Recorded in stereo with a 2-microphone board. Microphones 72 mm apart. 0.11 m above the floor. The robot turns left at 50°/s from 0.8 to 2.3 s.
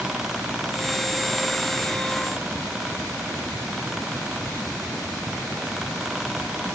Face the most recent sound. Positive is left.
No sound to turn to.